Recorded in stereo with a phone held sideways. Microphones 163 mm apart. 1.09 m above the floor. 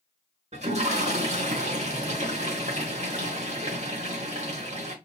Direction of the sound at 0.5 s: 45° right (ahead or behind).